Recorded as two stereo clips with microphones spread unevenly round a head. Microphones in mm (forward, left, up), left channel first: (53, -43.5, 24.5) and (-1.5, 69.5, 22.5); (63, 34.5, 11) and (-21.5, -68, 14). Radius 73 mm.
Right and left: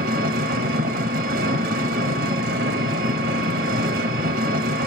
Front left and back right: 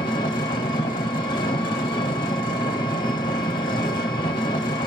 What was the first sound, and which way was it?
An engine running, 115° left.